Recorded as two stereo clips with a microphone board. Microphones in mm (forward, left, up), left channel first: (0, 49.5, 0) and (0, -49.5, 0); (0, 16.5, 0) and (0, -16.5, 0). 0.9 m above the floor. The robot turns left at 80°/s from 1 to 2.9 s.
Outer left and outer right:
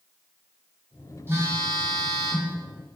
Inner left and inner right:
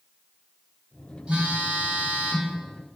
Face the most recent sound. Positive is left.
turn(degrees=-170)